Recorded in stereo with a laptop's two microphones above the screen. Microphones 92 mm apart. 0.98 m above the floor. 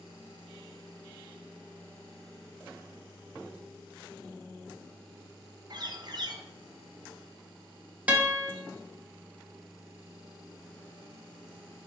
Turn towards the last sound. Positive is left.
turn(degrees=-15)  # may be behind; listen again after turning